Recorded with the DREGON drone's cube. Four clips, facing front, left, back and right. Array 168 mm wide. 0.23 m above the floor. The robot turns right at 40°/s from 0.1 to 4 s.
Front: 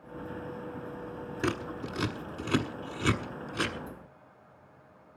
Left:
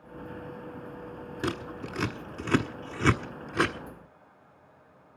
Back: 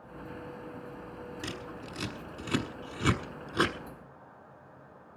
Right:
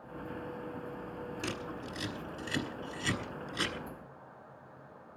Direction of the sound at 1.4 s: 40° left.